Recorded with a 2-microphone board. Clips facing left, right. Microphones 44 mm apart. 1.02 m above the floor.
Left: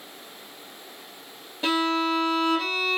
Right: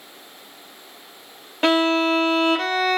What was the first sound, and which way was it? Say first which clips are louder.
A violin: right 6 dB; 60° right (ahead or behind).